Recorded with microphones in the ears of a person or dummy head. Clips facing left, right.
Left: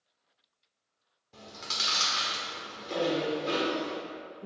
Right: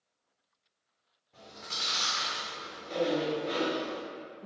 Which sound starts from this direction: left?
Chewing, at 1.3 s.